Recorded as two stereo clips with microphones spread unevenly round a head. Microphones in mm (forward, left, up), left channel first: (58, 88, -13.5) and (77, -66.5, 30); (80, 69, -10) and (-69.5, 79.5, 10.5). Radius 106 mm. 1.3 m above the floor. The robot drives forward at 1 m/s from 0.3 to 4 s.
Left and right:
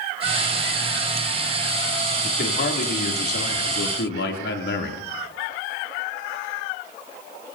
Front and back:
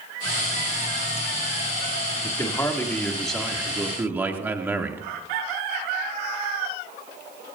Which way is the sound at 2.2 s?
65° left.